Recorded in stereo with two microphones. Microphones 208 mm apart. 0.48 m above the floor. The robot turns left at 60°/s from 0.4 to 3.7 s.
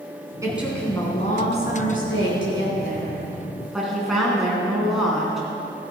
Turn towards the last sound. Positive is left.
turn(degrees=0)